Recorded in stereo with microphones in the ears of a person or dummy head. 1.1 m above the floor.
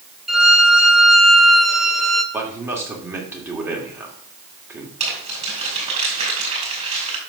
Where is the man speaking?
10° right (ahead or behind), 2 m.